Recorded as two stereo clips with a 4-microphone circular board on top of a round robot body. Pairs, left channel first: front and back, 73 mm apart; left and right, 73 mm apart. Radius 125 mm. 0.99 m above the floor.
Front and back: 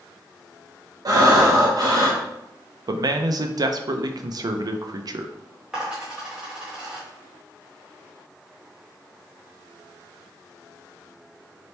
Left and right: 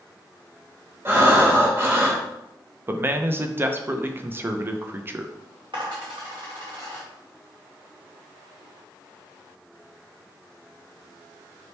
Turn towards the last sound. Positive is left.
turn(degrees=-100)